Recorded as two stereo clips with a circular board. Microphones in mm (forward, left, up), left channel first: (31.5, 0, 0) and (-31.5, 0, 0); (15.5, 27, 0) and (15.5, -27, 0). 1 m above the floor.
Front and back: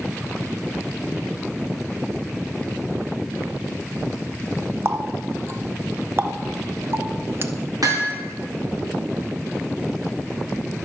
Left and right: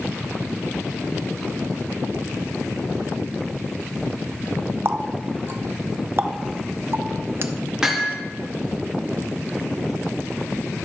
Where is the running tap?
130° right, 0.6 m.